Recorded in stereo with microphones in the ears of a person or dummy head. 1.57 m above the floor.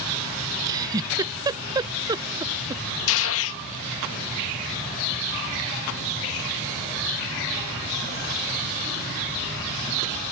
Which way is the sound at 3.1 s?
75° left (ahead or behind).